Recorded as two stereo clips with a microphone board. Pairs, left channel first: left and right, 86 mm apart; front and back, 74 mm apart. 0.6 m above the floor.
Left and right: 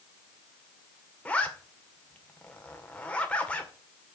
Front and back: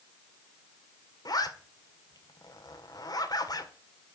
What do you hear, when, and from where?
1.2 s a zipper: 15° left, 1.7 m